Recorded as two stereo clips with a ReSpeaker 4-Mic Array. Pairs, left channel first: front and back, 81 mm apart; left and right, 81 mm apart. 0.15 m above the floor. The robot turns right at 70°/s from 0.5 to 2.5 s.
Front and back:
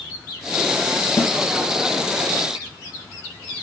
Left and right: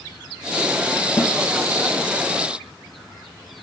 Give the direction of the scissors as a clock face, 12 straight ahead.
I don't hear scissors.